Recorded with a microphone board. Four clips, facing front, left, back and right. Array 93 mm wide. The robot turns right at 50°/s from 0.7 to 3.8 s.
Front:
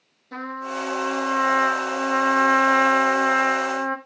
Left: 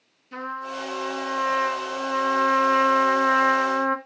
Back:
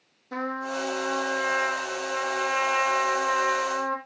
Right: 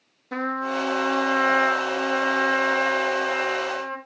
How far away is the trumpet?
About 2 m.